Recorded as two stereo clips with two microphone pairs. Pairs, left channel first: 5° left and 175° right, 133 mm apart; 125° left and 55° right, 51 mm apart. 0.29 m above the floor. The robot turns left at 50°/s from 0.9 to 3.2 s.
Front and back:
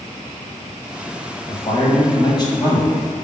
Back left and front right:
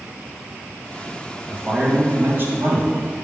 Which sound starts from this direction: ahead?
A man speaking, at 1.5 s.